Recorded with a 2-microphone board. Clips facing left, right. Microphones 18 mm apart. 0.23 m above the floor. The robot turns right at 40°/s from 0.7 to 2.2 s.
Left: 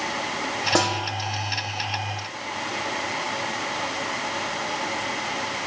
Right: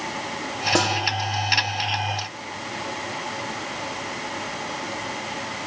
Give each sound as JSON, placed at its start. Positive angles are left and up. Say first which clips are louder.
{"t": 0.8, "sound": "a snare drum", "louder": "right 1 dB", "side_deg": 10, "distance_m": 3.0}